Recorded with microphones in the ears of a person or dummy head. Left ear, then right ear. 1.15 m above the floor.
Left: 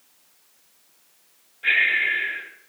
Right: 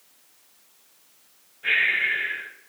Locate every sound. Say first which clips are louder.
1.6 s breathing: left 2 dB; 30° left (ahead or behind), 3.5 m